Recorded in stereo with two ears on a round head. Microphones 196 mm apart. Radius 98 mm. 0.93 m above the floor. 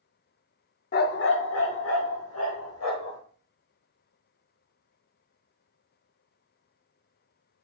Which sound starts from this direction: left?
A dog barking, at 0.9 s.